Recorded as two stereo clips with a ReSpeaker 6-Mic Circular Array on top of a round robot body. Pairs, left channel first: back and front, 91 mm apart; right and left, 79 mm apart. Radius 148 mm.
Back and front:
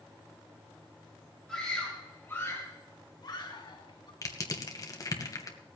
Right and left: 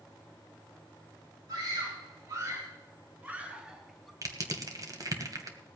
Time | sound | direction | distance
1.5 | a scream | 95° left | 3.5 m
4.2 | crushing | 130° left | 2 m